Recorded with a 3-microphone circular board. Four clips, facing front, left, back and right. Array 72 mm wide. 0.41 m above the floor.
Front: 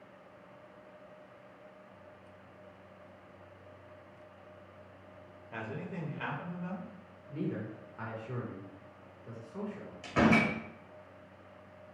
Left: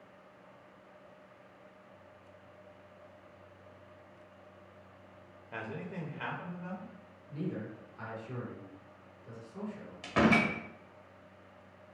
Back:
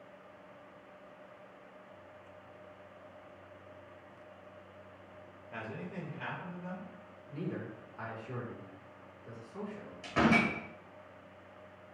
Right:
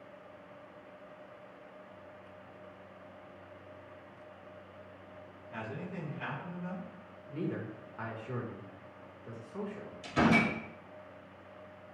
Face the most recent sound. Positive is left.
turn(degrees=85)